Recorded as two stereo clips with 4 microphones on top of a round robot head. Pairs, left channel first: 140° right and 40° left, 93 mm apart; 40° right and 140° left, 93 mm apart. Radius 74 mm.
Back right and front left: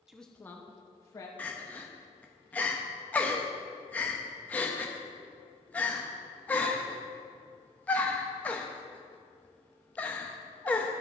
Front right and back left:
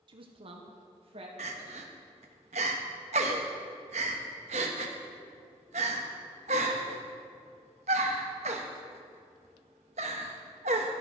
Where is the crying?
145° left, 0.9 m.